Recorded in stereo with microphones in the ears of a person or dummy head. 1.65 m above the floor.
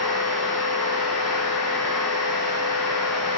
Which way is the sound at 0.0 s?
5° left (ahead or behind).